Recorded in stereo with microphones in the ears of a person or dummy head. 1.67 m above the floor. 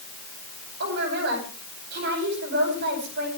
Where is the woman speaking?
60° right (ahead or behind), 9.5 m.